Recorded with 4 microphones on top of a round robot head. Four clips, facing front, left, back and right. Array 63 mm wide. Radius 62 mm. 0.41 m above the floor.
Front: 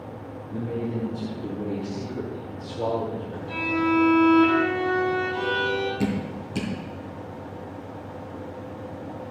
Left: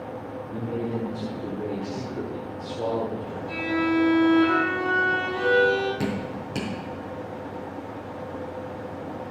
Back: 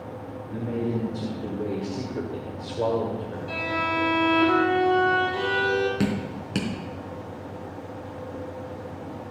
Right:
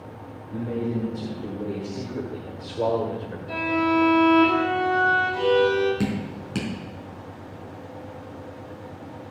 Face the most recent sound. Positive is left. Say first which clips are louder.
# right 1 dB, even
turn(degrees=-160)